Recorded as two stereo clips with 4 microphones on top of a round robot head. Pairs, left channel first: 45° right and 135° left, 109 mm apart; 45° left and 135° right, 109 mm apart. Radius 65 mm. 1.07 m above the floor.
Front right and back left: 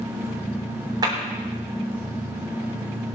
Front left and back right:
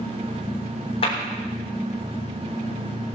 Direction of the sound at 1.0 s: 80° left.